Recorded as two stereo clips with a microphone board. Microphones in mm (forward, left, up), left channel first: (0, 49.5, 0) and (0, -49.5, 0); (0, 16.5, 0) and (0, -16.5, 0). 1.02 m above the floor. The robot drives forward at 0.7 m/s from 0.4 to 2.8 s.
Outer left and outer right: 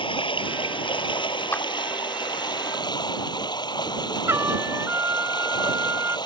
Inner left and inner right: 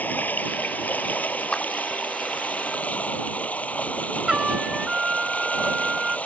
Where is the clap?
25° left (ahead or behind).